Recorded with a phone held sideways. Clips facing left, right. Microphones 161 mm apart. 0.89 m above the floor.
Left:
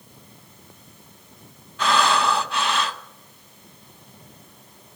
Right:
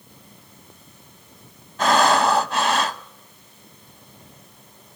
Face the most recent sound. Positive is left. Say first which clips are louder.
# right 4 dB
turn(degrees=-40)  # may be behind; listen again after turning